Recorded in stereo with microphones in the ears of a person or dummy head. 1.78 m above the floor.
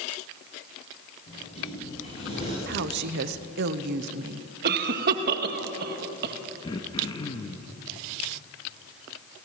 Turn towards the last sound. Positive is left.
turn(degrees=20)  # may be behind; listen again after turning